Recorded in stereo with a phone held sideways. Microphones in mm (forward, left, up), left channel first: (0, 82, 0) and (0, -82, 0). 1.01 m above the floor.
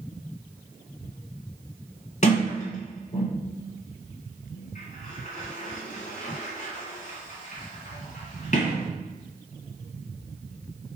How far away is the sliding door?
About 1.8 m.